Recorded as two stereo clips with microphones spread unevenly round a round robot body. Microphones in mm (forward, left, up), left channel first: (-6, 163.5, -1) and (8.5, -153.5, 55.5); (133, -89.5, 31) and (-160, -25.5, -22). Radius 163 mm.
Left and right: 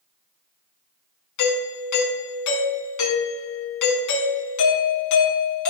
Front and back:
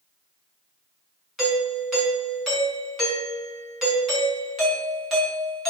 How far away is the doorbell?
About 5 m.